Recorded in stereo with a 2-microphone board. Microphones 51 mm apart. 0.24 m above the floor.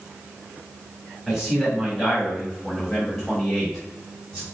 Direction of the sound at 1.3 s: 5° right (ahead or behind).